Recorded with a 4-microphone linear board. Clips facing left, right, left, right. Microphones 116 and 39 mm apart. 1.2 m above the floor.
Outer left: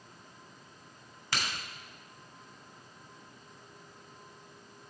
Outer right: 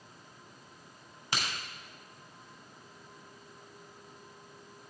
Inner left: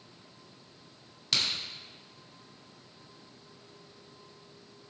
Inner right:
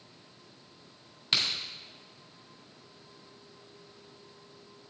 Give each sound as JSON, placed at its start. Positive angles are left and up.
{"t": 1.3, "sound": "a crack", "side_deg": -15, "distance_m": 3.0}